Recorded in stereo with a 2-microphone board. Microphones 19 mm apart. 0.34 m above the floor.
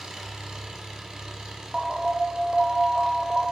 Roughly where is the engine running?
Right.